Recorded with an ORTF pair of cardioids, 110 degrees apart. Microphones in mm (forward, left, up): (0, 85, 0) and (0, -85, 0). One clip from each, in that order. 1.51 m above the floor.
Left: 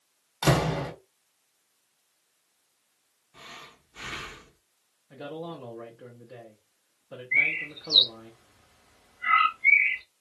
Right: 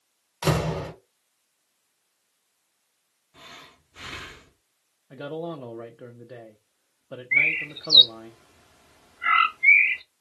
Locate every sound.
0.4 s a door slam: straight ahead, 1.0 m
3.3 s breathing: 5° right, 0.7 m
5.1 s a man speaking: 30° right, 0.5 m
7.3 s a bird: 40° right, 0.6 m